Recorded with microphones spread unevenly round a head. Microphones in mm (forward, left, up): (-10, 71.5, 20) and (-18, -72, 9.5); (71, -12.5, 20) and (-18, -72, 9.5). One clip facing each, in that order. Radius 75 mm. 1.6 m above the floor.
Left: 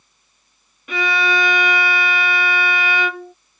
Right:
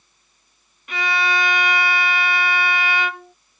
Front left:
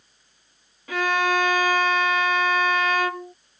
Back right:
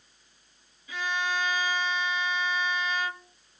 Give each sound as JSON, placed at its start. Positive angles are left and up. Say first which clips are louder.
{"t": 0.9, "sound": "a violin", "louder": "left 3 dB, front left 9 dB", "azimuth_deg": 90}